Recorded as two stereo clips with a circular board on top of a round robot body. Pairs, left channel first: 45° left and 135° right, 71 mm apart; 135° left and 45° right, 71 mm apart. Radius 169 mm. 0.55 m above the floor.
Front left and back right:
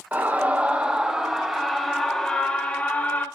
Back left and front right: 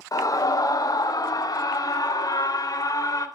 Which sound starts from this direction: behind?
A scream, at 0.1 s.